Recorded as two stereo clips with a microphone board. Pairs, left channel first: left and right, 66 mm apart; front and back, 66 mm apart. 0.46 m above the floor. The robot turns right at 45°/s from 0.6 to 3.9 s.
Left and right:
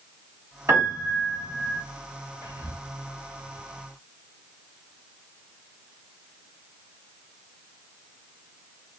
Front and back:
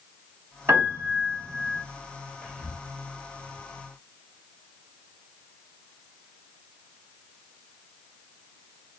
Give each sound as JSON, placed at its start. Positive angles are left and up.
{"t": 0.7, "sound": "a piano", "azimuth_deg": -135, "distance_m": 1.7}
{"t": 2.4, "sound": "whispering", "azimuth_deg": -65, "distance_m": 1.2}